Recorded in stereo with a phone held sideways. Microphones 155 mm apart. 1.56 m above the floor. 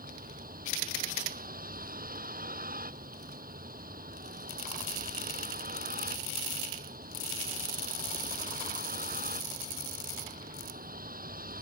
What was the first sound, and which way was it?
A vehicle, 65° right (ahead or behind).